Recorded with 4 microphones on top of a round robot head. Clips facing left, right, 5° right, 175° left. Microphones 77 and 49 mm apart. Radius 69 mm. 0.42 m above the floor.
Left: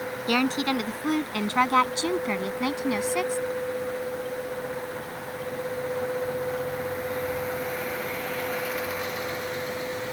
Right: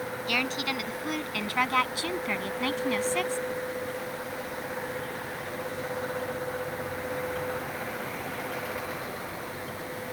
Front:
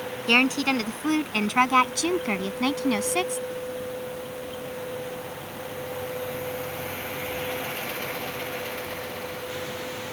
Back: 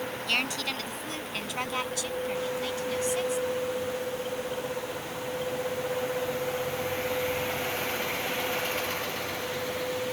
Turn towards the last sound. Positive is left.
turn(degrees=10)